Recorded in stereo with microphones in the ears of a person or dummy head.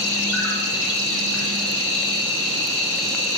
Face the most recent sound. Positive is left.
turn(degrees=5)  # may be behind; listen again after turning